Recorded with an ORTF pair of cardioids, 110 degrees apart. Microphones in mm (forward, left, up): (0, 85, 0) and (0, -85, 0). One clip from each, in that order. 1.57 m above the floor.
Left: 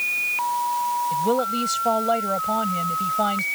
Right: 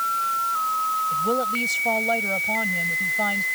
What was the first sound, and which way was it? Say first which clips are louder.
A woman speaking: left 1 dB; 25° left.